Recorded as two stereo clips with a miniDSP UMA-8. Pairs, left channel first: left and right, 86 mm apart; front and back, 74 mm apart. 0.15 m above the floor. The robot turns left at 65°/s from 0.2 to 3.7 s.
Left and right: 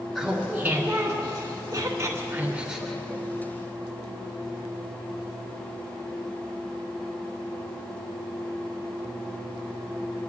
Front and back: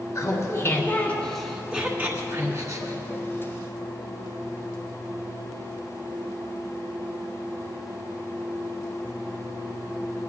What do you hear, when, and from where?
0.1 s laughter: straight ahead, 1.8 m; by 3.2 s 165° left, 1.8 m